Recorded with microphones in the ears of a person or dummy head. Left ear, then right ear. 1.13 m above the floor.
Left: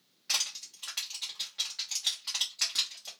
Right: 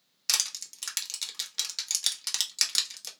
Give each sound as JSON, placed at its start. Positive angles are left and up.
{"t": 0.3, "sound": "crushing", "side_deg": -80, "distance_m": 1.2}